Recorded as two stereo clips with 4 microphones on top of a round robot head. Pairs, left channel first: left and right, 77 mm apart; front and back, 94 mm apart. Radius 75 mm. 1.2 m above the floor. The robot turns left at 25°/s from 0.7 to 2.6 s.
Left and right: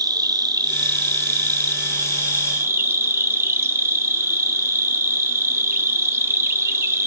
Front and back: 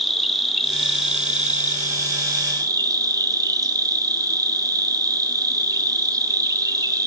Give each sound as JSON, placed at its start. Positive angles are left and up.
{"t": 0.0, "sound": "an insect", "azimuth_deg": -90, "distance_m": 1.1}